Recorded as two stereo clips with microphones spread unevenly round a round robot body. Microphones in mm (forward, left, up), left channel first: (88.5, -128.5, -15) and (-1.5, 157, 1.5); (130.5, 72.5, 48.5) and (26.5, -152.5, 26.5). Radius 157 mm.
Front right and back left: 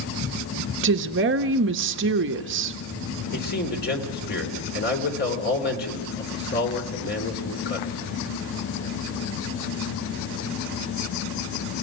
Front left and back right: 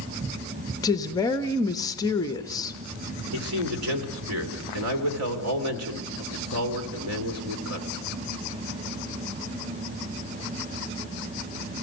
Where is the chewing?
No chewing in this recording.